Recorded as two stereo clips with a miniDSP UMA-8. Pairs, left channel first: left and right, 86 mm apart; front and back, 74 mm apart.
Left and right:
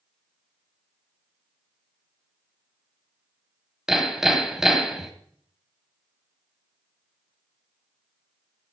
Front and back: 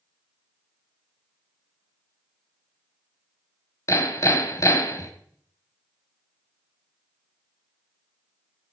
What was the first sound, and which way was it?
Hammering, 5° right.